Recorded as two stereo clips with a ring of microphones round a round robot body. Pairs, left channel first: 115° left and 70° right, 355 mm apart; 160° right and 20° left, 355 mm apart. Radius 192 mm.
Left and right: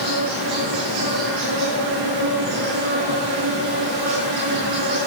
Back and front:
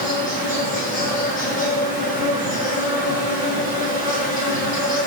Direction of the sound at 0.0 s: 90° right.